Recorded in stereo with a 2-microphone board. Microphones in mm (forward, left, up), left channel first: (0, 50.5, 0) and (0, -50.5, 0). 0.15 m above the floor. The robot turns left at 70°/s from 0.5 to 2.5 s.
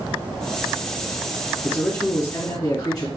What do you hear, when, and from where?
1.6 s a man speaking: 170° left, 2 m; by 3.1 s 110° left, 2 m